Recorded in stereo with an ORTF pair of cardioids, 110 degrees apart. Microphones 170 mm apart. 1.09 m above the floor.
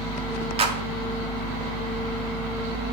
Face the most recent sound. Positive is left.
turn(degrees=-35)